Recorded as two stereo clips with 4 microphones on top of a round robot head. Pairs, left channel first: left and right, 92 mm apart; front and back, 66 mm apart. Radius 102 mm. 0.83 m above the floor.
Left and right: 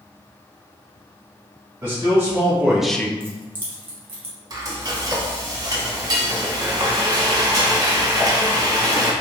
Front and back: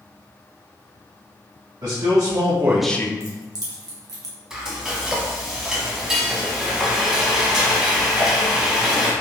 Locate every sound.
1.8 s a man speaking: 155° right, 1.4 m; by 3.1 s 25° left, 0.6 m
3.2 s keys jangling: 155° right, 0.9 m
4.5 s frying: 105° right, 1.0 m